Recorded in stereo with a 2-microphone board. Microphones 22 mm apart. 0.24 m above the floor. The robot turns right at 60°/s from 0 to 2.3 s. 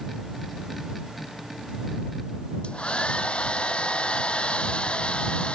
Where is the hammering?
No hammering in this recording.